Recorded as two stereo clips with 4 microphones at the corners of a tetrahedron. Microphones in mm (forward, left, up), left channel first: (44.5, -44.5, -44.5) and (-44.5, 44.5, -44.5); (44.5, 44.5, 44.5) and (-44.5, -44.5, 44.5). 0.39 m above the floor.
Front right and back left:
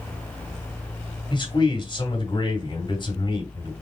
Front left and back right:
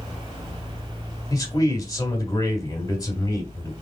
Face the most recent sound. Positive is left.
turn(degrees=-10)